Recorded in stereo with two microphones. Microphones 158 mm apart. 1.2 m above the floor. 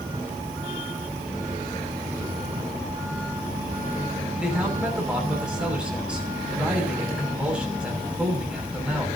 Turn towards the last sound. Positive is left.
turn(degrees=-5)  # may be behind; listen again after turning